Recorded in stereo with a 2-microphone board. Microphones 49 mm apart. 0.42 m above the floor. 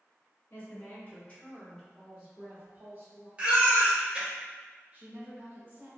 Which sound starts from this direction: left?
A woman speaking, at 0.5 s.